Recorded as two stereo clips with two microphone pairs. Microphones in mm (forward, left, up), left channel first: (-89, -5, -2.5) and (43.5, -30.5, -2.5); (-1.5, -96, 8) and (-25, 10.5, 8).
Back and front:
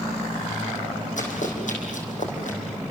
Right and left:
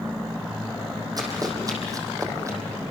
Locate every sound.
1.2 s running footsteps: 155° left, 5 m; by 2.6 s 165° left, 4.5 m